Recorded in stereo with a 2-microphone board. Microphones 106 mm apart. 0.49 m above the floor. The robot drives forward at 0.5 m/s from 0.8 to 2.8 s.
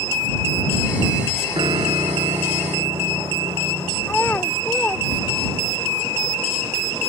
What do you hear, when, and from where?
1.6 s a piano: 50° right (ahead or behind); by 4.0 s 55° right (ahead or behind)
4.0 s a child speaking: 15° left (ahead or behind)